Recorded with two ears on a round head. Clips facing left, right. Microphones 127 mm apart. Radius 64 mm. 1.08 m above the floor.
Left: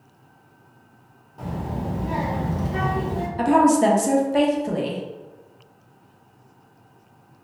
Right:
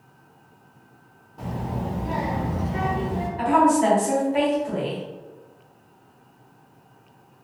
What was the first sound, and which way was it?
A child speaking, centre (ahead or behind).